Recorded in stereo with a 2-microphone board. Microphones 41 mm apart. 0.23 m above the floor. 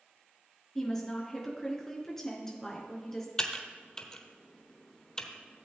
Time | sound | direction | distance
0.8 | a woman speaking | 15° left (ahead or behind) | 3 m
3.4 | typing on a keyboard | 20° left (ahead or behind) | 1.0 m